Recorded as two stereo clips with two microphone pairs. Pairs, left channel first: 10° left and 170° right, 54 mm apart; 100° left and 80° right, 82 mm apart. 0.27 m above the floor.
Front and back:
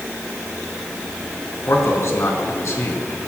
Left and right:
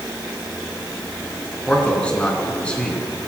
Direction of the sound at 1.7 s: 30° left.